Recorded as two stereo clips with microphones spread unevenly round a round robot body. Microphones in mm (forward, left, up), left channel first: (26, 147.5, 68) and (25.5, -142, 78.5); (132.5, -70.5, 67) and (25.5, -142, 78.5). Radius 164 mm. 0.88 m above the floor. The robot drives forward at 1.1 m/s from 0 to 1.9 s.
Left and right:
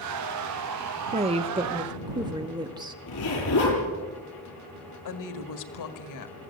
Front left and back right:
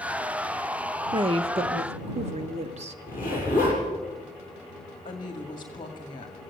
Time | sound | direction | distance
1.1 | a woman speaking | 135° right | 1.0 m
3.1 | a zipper | 135° left | 7 m
5.0 | a woman speaking | 90° left | 1.8 m